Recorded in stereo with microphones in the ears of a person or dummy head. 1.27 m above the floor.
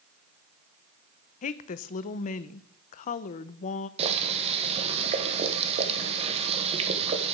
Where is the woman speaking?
45° left (ahead or behind), 0.5 m.